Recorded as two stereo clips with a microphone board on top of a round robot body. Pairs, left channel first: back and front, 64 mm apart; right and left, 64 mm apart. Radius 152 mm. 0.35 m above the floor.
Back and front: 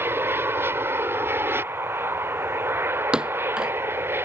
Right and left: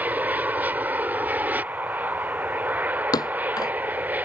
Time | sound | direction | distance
0.0 | an aircraft | 35° left | ?
3.1 | a thud | 80° right | ?